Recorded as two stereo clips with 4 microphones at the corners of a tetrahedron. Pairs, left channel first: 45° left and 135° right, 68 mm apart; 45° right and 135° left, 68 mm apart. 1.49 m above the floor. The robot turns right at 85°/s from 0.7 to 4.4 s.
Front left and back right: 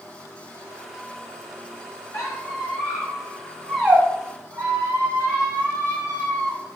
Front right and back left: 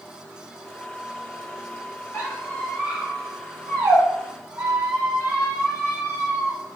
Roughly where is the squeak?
Ahead.